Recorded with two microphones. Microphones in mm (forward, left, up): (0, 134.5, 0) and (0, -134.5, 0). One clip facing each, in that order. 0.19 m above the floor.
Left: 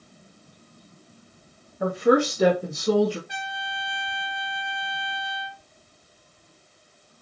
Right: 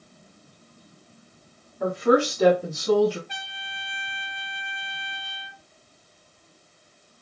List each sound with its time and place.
1.8 s a woman speaking: 5° left (ahead or behind), 1.0 m; by 3.2 s 45° left (ahead or behind), 1.6 m
3.3 s a trumpet: 10° left (ahead or behind), 1.5 m